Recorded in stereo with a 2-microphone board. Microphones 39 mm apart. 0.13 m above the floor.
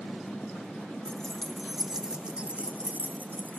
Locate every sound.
1.1 s keys jangling: 15° left (ahead or behind), 1.5 m; by 3.6 s 55° right (ahead or behind), 2.5 m